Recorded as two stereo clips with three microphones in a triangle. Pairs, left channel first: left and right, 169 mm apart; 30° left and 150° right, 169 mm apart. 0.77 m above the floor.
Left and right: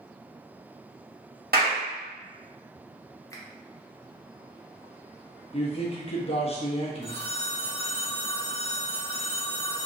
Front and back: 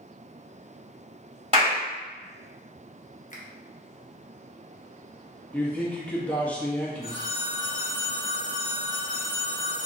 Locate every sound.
1.5 s a clap: 100° right, 1.7 m
3.3 s a finger snap: 25° left, 0.7 m
5.5 s a man speaking: 105° left, 0.8 m
7.0 s a phone ringing: 100° right, 1.6 m